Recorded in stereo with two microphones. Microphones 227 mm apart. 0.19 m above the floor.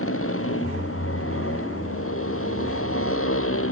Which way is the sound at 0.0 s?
70° left (ahead or behind).